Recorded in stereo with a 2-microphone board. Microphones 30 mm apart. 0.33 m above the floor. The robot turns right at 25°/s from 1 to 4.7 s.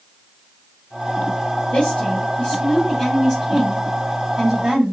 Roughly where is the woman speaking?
Behind left.